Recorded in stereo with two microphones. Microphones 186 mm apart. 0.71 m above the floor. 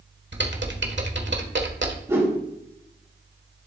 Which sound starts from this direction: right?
Typing on a keyboard, at 0.3 s.